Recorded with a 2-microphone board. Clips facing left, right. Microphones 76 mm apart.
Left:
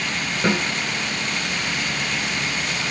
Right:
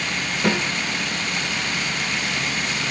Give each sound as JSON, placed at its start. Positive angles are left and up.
{"t": 0.4, "sound": "a snare drum", "side_deg": 25, "distance_m": 5.0}